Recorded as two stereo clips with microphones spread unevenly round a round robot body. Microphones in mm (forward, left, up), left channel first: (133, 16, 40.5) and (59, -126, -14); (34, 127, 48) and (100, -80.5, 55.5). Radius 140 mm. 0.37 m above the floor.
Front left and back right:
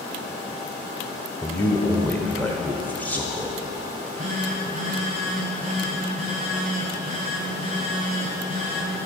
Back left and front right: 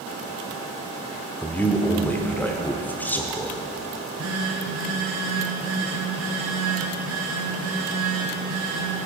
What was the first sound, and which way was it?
A man speaking, 175° left.